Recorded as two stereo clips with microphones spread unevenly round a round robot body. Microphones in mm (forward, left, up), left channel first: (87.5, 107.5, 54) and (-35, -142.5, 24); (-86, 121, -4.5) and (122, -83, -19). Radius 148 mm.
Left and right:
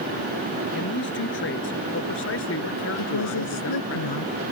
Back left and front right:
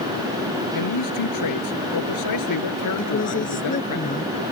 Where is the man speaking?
120° left; by 4.0 s 110° left.